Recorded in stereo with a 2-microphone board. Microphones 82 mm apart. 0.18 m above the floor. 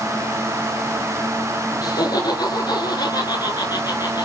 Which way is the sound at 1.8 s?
55° left (ahead or behind).